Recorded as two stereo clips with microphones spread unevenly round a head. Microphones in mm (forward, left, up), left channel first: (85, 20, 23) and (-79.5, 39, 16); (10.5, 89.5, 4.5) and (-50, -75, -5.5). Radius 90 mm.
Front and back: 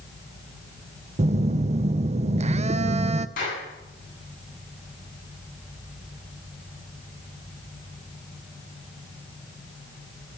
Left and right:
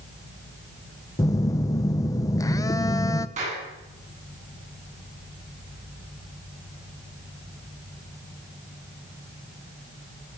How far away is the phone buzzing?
About 0.7 m.